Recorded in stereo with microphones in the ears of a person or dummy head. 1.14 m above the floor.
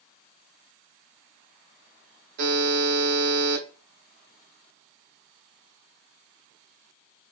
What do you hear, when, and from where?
2.4 s a buzzer: 55° right (ahead or behind), 1.1 m